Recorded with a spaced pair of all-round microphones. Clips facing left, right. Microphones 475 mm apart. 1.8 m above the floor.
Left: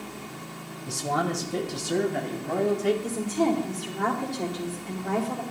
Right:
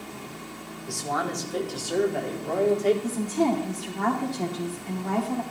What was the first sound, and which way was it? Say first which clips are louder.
A man speaking: left 2 dB; 55° left (ahead or behind).